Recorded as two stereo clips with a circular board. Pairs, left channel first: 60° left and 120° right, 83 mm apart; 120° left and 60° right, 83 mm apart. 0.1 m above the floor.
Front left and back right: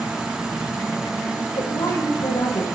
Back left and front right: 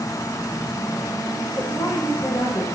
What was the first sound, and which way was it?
A woman speaking, 70° left.